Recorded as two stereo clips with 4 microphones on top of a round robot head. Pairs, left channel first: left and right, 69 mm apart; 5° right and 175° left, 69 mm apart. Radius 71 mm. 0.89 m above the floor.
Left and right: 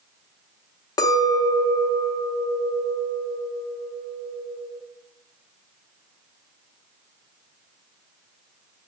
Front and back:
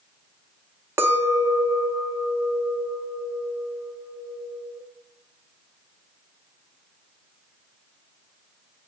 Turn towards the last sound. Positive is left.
turn(degrees=120)